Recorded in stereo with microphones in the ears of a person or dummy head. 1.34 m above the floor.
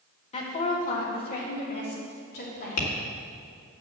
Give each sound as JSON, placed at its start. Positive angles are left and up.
{"t": 0.3, "sound": "a woman speaking", "side_deg": 35, "distance_m": 1.7}
{"t": 2.8, "sound": "tapping", "side_deg": 85, "distance_m": 1.9}